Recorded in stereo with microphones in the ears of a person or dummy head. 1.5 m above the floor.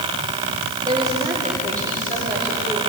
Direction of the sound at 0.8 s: 10° left (ahead or behind).